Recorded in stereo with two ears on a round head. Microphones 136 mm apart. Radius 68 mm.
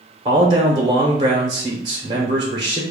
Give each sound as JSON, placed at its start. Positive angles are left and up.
{"t": 0.2, "sound": "a man speaking", "side_deg": -30, "distance_m": 0.8}